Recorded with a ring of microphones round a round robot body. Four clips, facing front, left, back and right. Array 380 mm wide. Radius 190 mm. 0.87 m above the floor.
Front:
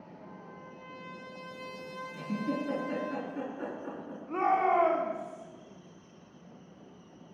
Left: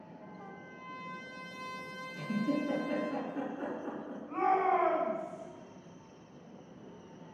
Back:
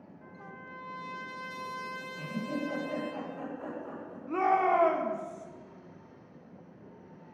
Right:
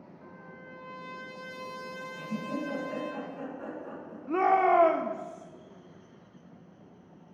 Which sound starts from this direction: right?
A shout, at 4.3 s.